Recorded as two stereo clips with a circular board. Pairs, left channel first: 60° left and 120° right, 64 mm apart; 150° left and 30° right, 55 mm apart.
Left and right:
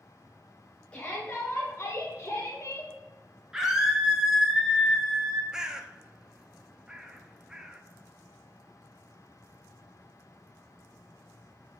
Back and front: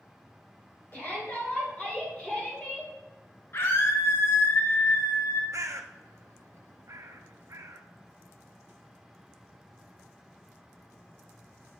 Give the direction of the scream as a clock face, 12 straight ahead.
7 o'clock.